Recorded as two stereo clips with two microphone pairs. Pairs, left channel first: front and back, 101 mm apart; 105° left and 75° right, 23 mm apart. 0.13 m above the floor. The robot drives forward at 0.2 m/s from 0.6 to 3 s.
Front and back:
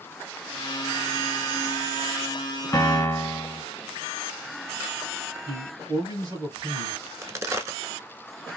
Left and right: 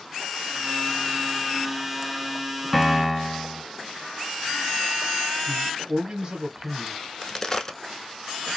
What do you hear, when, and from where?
2.7 s a piano: 20° left, 0.7 m; by 3.6 s 25° left, 0.6 m
5.5 s a man speaking: 130° right, 2.5 m
7.0 s a crack: 145° left, 0.6 m